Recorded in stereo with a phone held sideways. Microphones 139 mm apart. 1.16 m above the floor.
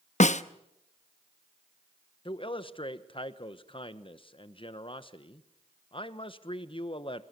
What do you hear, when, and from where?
0.2 s a snare drum: 60° left (ahead or behind), 0.7 m
2.2 s a man speaking: 40° left (ahead or behind), 1.2 m